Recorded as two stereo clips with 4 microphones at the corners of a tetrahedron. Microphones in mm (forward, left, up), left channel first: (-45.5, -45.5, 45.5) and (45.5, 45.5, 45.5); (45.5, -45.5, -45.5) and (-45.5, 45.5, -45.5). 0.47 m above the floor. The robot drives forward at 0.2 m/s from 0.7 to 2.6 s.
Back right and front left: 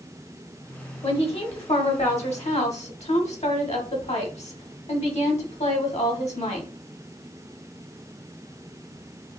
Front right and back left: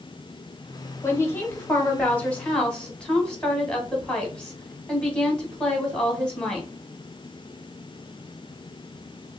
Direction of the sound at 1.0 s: 110° right.